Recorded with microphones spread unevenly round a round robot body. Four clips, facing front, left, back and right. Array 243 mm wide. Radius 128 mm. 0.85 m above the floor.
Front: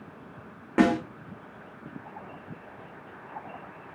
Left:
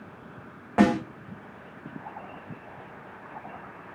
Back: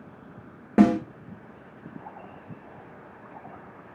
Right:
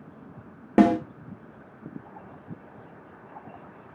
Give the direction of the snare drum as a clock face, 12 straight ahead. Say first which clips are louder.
Right 3 dB, back 3 dB; 4 o'clock.